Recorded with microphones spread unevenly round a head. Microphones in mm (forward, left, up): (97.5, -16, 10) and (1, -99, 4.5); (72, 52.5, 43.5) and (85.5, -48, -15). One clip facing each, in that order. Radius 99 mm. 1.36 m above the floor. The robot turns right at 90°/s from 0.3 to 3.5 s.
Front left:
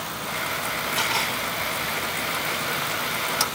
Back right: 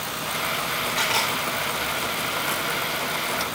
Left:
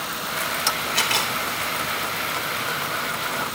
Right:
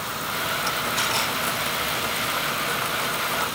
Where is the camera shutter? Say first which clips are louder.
Back right 2 dB, left 1 dB; 125° left, 3.5 m; by 1.4 s 160° left, 3.5 m.